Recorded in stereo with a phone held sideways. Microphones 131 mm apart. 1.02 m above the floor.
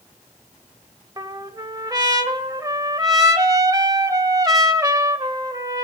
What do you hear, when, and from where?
1.2 s a trumpet: 25° right (ahead or behind), 1.0 m